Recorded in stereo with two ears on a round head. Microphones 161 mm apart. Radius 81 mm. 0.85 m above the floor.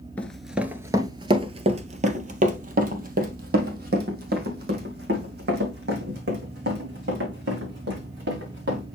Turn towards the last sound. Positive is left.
turn(degrees=-65)  # may be behind; listen again after turning